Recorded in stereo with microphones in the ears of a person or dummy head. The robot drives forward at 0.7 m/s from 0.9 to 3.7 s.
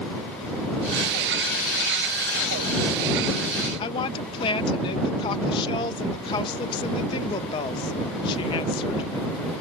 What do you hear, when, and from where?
3.8 s a woman speaking: 25° left (ahead or behind)